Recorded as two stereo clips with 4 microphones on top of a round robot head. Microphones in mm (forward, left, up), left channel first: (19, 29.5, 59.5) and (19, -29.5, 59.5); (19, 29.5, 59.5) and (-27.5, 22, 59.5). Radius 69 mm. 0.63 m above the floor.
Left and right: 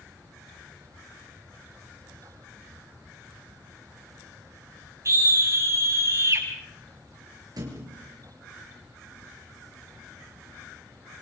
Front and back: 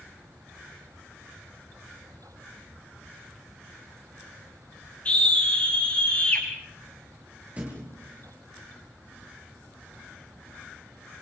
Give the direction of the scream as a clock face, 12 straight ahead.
2 o'clock.